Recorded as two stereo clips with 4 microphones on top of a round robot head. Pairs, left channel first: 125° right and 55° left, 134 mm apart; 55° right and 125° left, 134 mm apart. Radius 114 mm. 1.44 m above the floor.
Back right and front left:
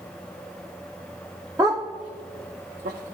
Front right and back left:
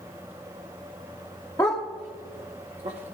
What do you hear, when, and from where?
1.6 s a dog barking: straight ahead, 1.0 m; by 3.1 s 80° left, 1.8 m